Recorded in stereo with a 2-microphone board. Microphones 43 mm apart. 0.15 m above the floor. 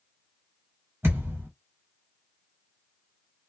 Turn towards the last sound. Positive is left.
turn(degrees=-65)  # may be behind; listen again after turning